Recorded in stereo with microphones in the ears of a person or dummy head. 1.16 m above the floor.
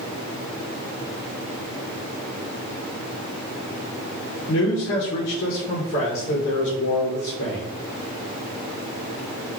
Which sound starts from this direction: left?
A man speaking, at 4.5 s.